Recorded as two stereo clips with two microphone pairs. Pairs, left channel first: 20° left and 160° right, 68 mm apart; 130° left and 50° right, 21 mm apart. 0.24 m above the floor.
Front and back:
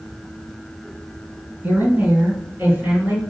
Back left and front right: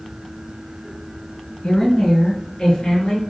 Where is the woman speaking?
140° left, 2.5 m; by 3.2 s 135° left, 3.5 m.